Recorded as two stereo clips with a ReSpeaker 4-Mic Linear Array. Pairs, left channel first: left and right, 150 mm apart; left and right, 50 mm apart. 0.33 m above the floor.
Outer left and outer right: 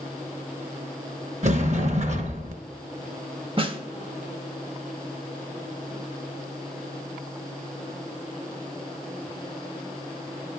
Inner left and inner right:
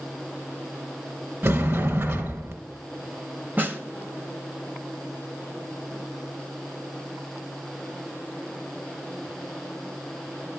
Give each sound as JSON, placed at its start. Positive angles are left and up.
{"t": 1.4, "sound": "a sliding door", "side_deg": -55, "distance_m": 1.3}
{"t": 3.6, "sound": "a snare drum", "side_deg": -35, "distance_m": 0.9}